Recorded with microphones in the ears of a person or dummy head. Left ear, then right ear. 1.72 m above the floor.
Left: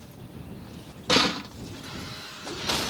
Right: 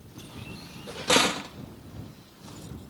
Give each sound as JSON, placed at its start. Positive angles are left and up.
{"t": 1.1, "sound": "a door slam", "side_deg": -20}